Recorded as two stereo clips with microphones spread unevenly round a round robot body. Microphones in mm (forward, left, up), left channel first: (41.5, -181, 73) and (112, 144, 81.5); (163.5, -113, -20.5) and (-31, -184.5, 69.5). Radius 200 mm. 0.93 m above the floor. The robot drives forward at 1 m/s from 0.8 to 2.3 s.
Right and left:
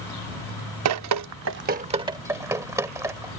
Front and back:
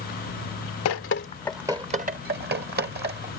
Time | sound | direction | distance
0.8 | dripping | 50° left | ?